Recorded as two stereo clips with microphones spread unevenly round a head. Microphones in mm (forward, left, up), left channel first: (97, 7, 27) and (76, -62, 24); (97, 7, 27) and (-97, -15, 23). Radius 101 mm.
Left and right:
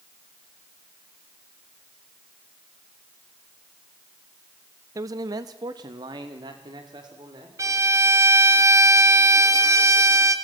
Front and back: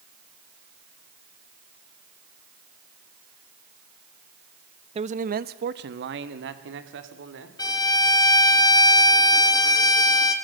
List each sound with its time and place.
5.0 s a man speaking: 120° right, 0.7 m; by 7.5 s 150° right, 3 m
7.6 s a violin: 65° right, 2.5 m